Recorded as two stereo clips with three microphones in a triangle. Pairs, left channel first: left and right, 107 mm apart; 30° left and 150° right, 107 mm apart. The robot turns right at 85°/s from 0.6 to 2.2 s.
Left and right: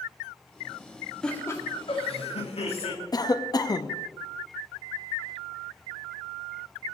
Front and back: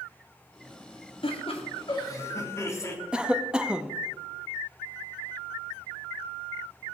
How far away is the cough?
About 0.6 m.